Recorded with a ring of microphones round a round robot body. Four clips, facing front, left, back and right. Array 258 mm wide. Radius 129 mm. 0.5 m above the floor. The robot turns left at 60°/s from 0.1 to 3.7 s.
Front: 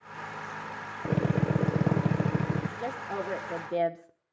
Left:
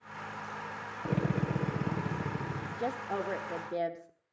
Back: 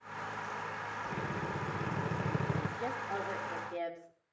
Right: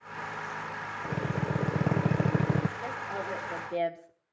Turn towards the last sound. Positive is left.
turn(degrees=15)